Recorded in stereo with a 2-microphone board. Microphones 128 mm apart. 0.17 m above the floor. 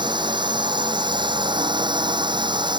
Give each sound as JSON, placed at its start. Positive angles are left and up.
{"t": 0.0, "sound": "a drone", "side_deg": -35}